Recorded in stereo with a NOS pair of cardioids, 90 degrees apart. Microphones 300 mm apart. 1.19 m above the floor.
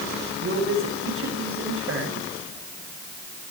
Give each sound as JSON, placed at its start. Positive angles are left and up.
{"t": 0.4, "sound": "a man speaking", "azimuth_deg": -40, "distance_m": 8.0}